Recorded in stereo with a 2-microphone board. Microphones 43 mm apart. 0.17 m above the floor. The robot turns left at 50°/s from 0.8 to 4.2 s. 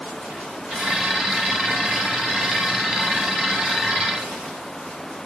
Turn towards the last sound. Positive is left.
No sound to turn to.